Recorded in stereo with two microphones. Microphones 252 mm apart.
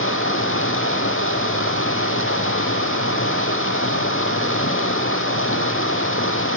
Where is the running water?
50° left (ahead or behind), 3 m.